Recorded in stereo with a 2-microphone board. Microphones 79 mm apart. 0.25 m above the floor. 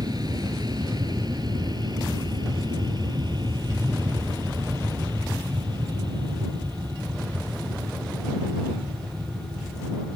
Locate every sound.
0.0 s an aircraft: 55° right (ahead or behind); by 10.2 s 70° right (ahead or behind)